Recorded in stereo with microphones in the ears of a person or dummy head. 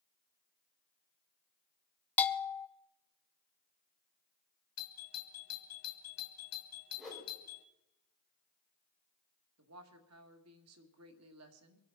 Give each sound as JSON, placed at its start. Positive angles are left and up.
{"t": 2.2, "sound": "a bell", "side_deg": 15, "distance_m": 0.7}
{"t": 4.8, "sound": "a doorbell", "side_deg": 75, "distance_m": 2.0}
{"t": 7.0, "sound": "a whoosh", "side_deg": 0, "distance_m": 4.0}
{"t": 9.6, "sound": "a woman speaking", "side_deg": -80, "distance_m": 2.0}